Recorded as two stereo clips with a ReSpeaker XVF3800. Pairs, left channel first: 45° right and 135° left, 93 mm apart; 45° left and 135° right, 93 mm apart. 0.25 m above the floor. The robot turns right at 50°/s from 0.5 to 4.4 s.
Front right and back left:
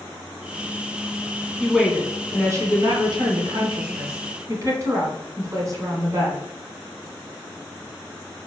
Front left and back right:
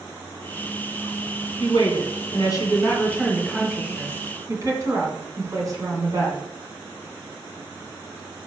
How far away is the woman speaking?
About 2 m.